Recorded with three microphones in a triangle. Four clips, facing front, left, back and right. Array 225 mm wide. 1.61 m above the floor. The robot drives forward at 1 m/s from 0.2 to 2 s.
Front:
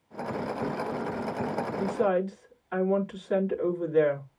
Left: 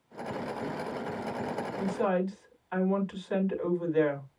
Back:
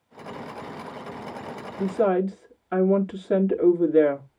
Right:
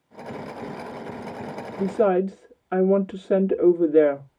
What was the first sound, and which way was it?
A woman speaking, 120° right.